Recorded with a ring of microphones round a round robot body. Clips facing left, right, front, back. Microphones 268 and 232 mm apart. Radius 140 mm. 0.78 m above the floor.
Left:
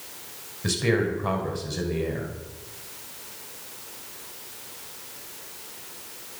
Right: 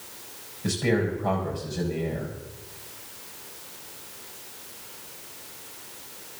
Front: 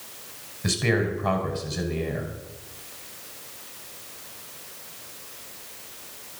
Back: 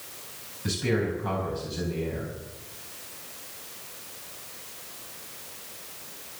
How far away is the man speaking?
About 5 m.